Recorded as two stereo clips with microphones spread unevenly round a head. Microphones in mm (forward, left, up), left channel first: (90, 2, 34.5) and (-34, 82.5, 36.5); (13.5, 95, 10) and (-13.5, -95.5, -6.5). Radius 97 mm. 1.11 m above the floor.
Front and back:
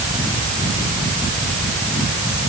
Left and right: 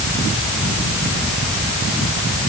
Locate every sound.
Only background noise.